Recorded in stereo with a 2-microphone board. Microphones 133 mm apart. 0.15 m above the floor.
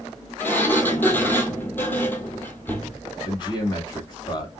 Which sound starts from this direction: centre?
A sliding door, at 0.4 s.